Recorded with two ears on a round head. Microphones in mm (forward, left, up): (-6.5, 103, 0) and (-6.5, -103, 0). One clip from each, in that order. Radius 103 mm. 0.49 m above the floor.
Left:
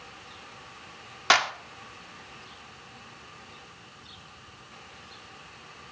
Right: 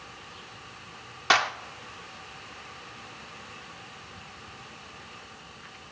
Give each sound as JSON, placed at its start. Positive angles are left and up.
{"t": 1.3, "sound": "a clap", "side_deg": 20, "distance_m": 0.5}